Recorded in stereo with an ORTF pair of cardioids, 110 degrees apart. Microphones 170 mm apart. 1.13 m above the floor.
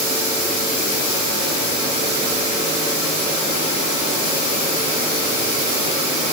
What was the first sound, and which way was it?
Only background noise.